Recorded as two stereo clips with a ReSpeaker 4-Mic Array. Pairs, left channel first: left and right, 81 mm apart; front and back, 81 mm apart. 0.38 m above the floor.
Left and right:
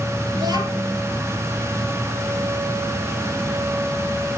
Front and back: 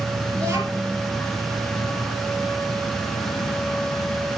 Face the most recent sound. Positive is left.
turn(degrees=-130)